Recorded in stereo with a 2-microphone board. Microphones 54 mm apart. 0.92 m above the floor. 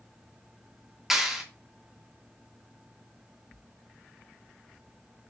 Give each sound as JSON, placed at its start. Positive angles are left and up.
{"t": 1.1, "sound": "a clap", "side_deg": -5, "distance_m": 1.6}